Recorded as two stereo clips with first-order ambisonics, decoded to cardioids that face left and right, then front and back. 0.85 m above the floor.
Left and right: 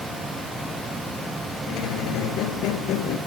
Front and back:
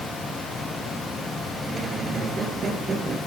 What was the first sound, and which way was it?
A squeak, 115° left.